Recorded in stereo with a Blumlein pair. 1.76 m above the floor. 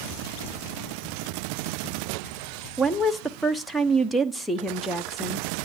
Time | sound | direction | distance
2.8 | a woman speaking | straight ahead | 1.0 m